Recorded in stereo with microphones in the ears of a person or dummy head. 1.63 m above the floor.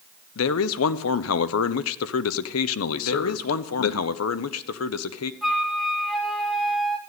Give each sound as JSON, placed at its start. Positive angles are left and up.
{"t": 0.3, "sound": "a man speaking", "side_deg": 75, "distance_m": 0.6}
{"t": 3.0, "sound": "a man speaking", "side_deg": 80, "distance_m": 0.7}
{"t": 5.4, "sound": "a flute", "side_deg": 0, "distance_m": 1.0}